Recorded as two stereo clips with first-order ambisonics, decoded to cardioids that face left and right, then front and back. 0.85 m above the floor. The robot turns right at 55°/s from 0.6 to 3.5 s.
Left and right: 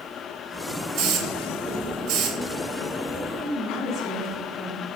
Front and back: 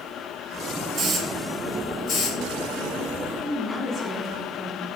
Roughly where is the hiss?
Behind right.